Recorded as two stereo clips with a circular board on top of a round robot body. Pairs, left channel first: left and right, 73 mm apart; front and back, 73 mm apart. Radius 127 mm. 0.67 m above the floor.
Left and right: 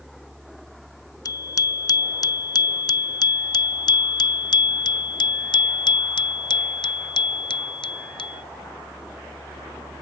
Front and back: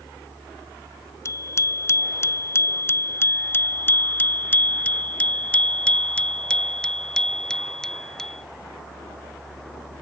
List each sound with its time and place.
1.2 s a bicycle bell: 50° left; by 8.4 s 85° left